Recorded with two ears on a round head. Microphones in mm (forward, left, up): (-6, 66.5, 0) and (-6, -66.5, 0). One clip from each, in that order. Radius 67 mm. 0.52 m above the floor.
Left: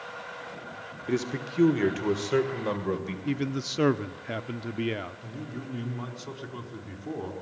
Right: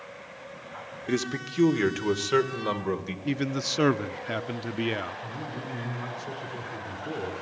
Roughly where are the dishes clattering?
I don't hear dishes clattering.